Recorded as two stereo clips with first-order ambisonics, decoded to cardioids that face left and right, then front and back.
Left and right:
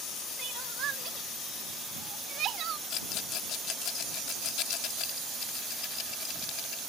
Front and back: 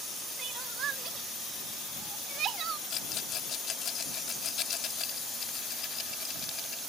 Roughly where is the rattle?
Ahead left.